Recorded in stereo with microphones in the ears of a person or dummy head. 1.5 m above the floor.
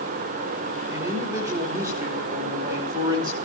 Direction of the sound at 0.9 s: 10° right (ahead or behind).